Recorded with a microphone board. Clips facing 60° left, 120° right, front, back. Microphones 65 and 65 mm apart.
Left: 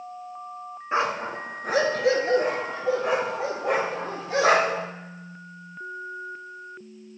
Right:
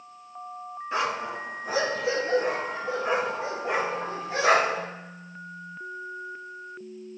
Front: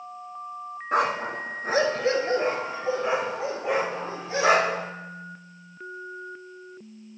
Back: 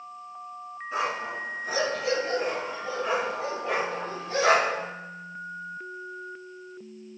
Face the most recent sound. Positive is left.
turn(degrees=75)